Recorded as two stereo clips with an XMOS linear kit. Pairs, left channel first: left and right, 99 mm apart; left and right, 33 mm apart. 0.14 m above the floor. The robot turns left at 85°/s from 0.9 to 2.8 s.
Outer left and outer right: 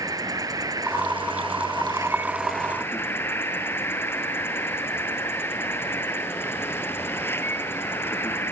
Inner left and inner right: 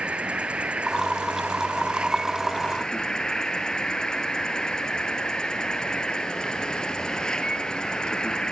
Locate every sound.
0.0 s an insect: 45° right, 1.4 m; by 8.5 s 155° left, 1.4 m